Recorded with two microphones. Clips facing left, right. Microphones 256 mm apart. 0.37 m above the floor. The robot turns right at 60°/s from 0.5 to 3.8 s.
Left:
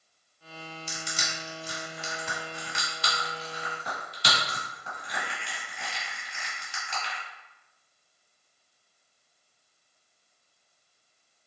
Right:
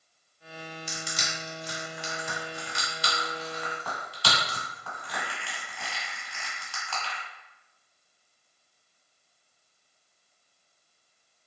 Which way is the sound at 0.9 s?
20° right (ahead or behind).